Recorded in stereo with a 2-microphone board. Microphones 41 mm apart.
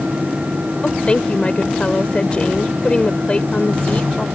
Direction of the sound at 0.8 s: 30° left (ahead or behind).